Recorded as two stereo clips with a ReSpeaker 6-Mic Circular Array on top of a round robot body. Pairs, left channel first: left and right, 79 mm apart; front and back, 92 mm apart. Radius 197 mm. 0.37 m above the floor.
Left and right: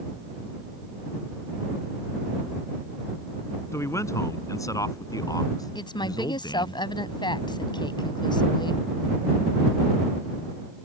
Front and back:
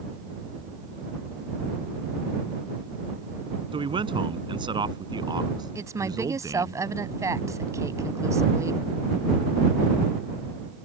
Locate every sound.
3.7 s a man speaking: 150° left; by 6.8 s 130° left
5.8 s a woman speaking: 120° left